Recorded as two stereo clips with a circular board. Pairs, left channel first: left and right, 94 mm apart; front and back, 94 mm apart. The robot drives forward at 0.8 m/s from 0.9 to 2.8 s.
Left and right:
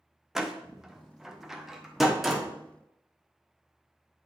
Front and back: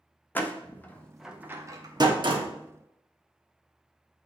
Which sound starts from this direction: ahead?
A door slam, at 0.3 s.